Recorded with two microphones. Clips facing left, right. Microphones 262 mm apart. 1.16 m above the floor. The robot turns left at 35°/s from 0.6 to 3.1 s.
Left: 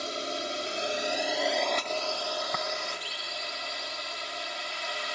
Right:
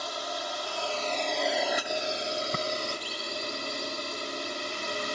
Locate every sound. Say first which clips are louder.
0.0 s a drone: left 2 dB; 30° left; by 5.2 s 55° right
2.5 s tapping: right 3 dB; 35° right (ahead or behind); by 2.6 s 40° right (ahead or behind)